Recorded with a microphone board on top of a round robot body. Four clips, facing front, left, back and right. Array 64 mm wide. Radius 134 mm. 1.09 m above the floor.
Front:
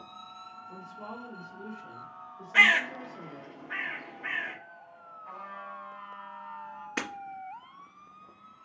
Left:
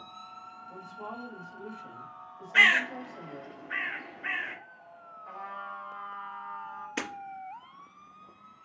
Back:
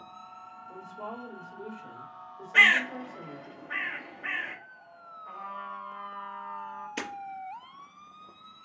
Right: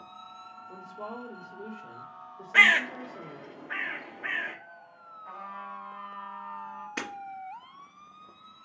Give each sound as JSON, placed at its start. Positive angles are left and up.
{"t": 0.7, "sound": "a woman speaking", "azimuth_deg": -105, "distance_m": 3.0}
{"t": 2.5, "sound": "a bird", "azimuth_deg": -90, "distance_m": 1.2}
{"t": 5.2, "sound": "a trumpet", "azimuth_deg": -75, "distance_m": 3.0}
{"t": 7.0, "sound": "breaking glass", "azimuth_deg": -25, "distance_m": 2.0}